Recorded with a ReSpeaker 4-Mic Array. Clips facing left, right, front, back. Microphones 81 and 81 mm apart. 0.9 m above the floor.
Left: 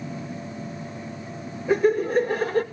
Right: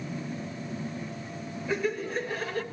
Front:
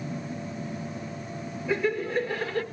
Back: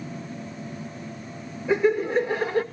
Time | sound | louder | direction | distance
1.7 | laughter | left 10 dB, back 6 dB | 125° left | 1.2 m